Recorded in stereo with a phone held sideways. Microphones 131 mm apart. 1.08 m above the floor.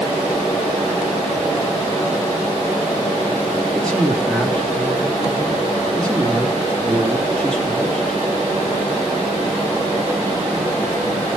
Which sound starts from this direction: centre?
A man speaking, at 3.7 s.